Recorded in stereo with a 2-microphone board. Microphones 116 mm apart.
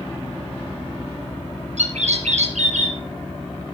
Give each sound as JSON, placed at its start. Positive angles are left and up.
{"t": 1.8, "sound": "a bird", "side_deg": -80, "distance_m": 2.5}